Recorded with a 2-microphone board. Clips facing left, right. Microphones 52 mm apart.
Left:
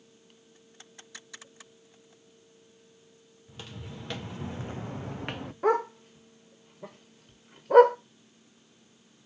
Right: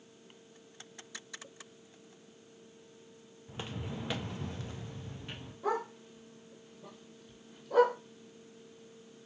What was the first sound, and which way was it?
Footsteps, 30° right (ahead or behind).